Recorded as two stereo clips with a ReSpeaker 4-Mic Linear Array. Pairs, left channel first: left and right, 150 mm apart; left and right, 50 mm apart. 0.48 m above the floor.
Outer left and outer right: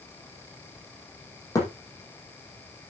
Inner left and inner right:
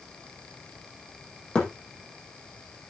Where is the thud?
20° left (ahead or behind), 5.5 m.